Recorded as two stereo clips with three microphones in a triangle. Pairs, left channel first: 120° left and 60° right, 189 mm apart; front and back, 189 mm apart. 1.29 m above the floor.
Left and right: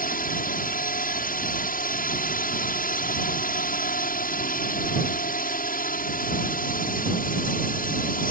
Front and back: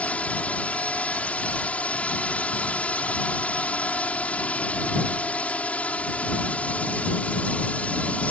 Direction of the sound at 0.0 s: 80° left.